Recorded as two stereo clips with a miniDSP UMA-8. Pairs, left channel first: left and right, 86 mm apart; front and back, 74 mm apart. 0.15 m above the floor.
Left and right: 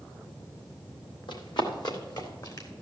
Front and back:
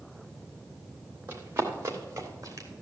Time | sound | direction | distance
1.3 | running footsteps | 120° left | 3 m